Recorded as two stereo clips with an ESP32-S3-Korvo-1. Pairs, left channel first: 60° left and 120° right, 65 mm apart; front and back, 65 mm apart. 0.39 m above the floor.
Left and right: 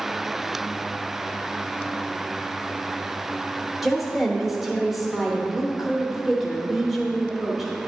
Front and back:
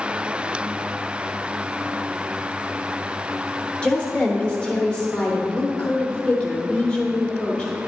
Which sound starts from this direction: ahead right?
A woman speaking, at 3.8 s.